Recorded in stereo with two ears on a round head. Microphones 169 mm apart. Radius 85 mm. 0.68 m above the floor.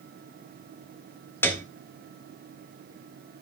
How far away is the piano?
About 1.7 m.